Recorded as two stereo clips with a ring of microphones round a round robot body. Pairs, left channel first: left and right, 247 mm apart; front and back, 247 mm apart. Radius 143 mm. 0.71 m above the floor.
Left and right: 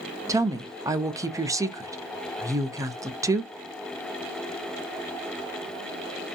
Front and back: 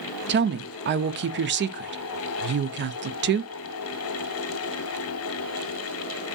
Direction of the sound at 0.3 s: 165° right.